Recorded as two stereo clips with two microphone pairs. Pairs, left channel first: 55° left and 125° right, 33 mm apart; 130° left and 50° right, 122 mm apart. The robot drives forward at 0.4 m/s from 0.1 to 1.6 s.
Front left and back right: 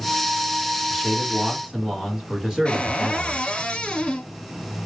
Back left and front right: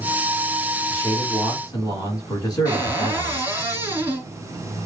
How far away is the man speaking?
About 1.4 m.